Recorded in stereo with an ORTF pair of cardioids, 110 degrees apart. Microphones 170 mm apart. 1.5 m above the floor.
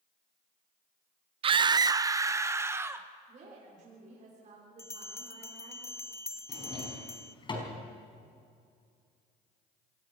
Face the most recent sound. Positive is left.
turn(degrees=30)